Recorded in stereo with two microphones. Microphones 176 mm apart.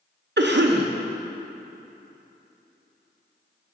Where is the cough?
80° right, 0.7 m.